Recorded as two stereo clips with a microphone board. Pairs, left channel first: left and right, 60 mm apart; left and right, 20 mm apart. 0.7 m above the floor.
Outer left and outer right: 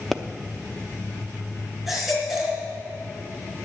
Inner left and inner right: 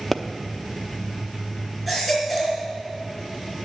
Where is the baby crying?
5° right (ahead or behind), 3.5 m.